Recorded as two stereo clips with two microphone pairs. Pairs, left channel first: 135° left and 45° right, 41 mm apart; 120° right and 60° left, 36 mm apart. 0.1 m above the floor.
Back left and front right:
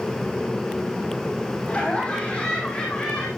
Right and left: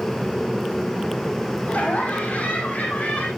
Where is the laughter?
160° right, 6 m; by 3.3 s 150° right, 6 m.